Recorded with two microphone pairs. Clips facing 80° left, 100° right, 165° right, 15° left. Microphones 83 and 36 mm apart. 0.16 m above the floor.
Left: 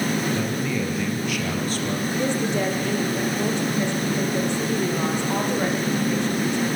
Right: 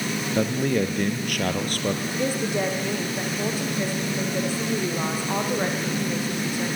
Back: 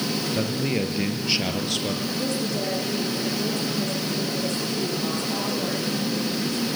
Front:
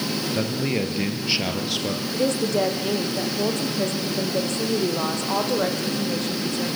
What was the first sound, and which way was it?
A man speaking, 70° right.